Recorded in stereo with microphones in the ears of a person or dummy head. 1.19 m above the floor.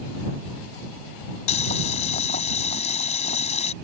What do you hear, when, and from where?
1.5 s boiling: 35° left (ahead or behind)